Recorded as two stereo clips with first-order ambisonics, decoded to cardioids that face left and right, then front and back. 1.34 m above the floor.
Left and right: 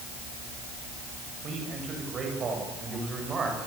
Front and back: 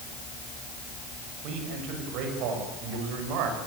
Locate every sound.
1.4 s a man speaking: 150° right, 9 m; by 3.6 s 160° right, 7.5 m